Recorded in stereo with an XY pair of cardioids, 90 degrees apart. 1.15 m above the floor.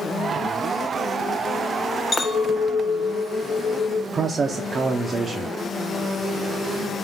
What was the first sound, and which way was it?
A clink, 35° left.